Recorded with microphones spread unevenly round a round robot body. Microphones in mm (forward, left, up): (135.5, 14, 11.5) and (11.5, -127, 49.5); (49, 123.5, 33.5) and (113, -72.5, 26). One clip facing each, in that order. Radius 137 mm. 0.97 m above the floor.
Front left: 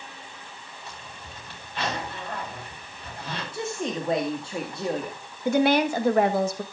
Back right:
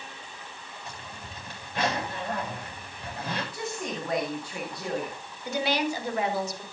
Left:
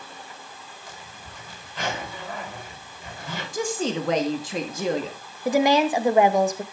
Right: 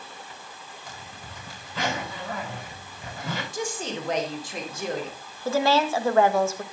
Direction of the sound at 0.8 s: 90° right.